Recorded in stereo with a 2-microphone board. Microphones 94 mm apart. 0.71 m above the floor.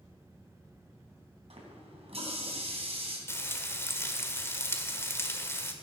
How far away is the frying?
About 1.5 m.